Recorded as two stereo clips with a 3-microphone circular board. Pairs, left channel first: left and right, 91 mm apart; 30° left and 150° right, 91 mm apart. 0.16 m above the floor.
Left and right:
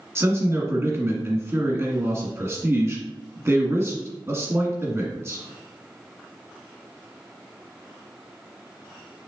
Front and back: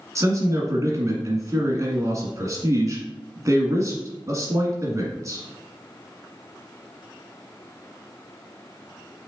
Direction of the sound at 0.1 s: 130° right.